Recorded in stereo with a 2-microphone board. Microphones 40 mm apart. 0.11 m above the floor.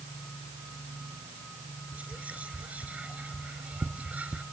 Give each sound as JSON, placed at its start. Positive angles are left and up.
{"t": 1.9, "sound": "whispering", "side_deg": -35, "distance_m": 1.4}